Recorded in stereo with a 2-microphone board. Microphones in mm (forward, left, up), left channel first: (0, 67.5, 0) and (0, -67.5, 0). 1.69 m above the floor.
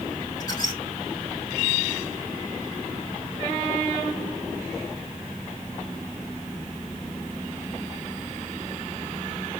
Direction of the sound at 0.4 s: 25° left (ahead or behind).